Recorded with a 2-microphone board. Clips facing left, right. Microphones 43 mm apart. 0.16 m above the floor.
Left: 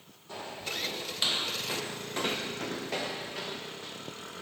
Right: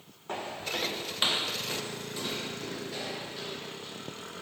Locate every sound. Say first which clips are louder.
0.3 s footsteps: right 3 dB; 55° right (ahead or behind), 1.2 m; by 4.0 s 85° left, 1.8 m